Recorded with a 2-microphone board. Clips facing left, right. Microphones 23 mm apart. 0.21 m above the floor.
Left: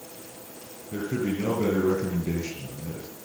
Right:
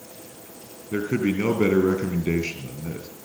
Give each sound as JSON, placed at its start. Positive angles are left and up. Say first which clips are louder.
{"t": 0.9, "sound": "a man speaking", "louder": "right 5 dB", "side_deg": -50, "distance_m": 3.5}